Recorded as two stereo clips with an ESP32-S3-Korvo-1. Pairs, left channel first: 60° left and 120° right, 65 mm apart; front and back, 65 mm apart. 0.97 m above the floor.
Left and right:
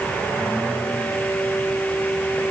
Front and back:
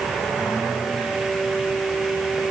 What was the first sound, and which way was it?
Only background noise.